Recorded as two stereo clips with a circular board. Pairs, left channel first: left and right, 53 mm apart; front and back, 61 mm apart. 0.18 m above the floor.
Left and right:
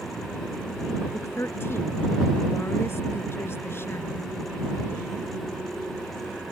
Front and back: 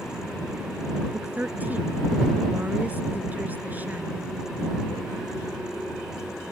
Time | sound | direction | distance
1.1 | a woman speaking | 120° left | ?